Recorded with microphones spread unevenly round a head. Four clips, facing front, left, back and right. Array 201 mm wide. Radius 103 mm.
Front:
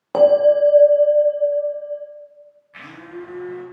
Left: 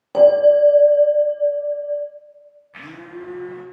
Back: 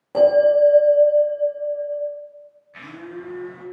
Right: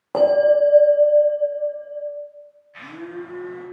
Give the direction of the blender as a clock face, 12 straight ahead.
9 o'clock.